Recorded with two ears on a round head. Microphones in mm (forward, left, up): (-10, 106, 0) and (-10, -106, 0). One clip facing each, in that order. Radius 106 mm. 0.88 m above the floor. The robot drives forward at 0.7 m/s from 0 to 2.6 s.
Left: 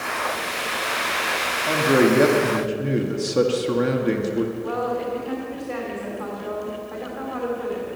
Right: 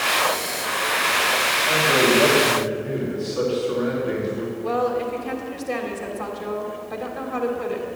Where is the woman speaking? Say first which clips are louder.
Right 2 dB; 55° right (ahead or behind), 3.5 m.